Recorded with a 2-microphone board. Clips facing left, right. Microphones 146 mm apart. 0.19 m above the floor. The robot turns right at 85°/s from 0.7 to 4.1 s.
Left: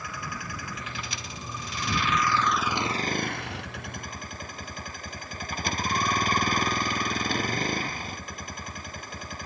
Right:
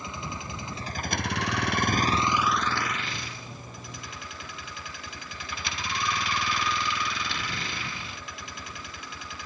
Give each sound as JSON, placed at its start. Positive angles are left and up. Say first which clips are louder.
{"t": 0.0, "sound": "a vehicle", "louder": "right 1 dB", "azimuth_deg": -155}